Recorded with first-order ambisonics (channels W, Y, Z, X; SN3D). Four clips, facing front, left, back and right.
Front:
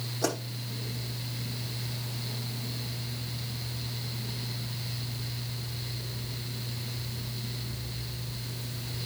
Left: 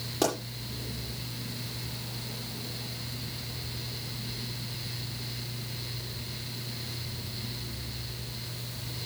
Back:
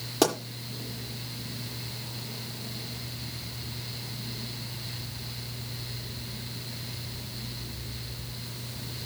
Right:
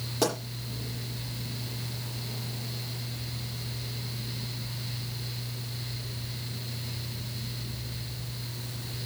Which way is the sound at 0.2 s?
175° left.